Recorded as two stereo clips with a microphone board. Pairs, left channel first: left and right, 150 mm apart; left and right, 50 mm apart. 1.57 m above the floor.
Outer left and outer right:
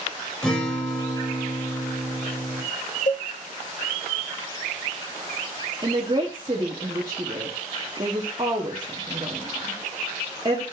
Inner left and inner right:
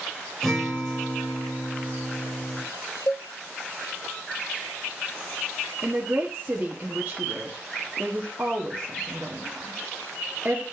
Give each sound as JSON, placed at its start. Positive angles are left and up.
{"t": 0.4, "sound": "a guitar", "side_deg": 5, "distance_m": 3.0}
{"t": 3.1, "sound": "a cowbell", "side_deg": 55, "distance_m": 0.6}
{"t": 5.8, "sound": "a woman speaking", "side_deg": -35, "distance_m": 1.1}